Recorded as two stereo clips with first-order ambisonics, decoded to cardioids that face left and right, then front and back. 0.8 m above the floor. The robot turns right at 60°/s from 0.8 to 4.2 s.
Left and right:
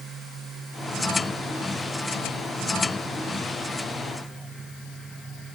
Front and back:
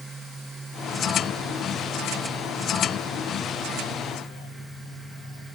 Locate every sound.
Only background noise.